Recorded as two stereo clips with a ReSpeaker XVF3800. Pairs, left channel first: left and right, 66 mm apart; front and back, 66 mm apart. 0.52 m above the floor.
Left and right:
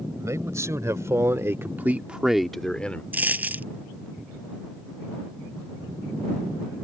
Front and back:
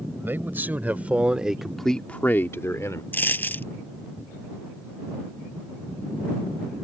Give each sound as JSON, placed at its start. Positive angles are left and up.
{"t": 0.2, "sound": "a man speaking", "azimuth_deg": -125}
{"t": 3.1, "sound": "a dropped coin", "azimuth_deg": -40}